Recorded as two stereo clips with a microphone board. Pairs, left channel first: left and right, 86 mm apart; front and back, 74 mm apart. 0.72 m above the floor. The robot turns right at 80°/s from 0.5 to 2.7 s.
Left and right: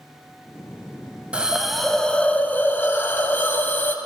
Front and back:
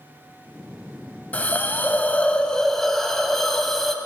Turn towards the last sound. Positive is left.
turn(degrees=80)